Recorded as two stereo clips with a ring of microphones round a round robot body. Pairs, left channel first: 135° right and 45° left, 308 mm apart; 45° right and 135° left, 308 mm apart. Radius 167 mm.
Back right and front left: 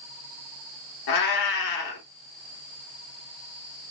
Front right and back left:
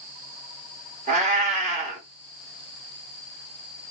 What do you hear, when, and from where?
1.1 s a cat meowing: 155° right, 1.0 m